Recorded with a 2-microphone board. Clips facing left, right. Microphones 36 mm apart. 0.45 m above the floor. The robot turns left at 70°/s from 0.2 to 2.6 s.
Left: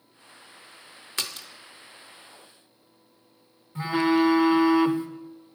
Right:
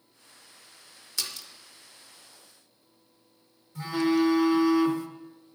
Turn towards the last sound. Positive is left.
turn(degrees=30)  # may be behind; listen again after turning